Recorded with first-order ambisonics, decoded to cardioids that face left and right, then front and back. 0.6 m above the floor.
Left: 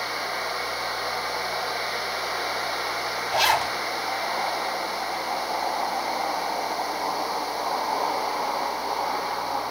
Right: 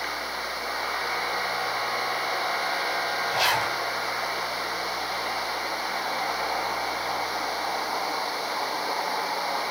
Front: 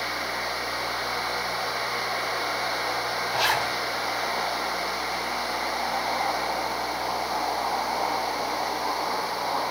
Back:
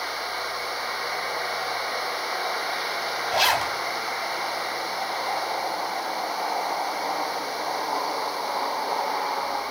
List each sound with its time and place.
3.3 s a zipper: 170° left, 3 m